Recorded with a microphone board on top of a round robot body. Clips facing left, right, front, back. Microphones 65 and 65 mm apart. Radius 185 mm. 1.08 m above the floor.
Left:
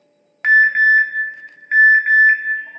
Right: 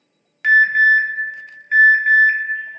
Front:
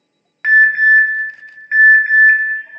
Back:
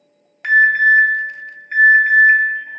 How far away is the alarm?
About 1.4 m.